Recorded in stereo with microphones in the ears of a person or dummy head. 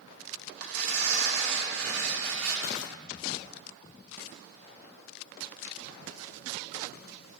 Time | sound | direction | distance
0.6 | tearing paper | 85° right | 2.5 m